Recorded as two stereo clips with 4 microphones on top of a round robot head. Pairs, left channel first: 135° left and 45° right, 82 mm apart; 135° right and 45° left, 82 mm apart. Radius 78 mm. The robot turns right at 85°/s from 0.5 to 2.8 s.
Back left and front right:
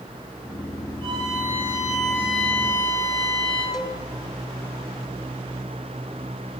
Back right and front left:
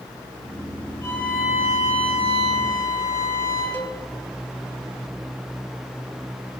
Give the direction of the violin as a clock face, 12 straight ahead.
2 o'clock.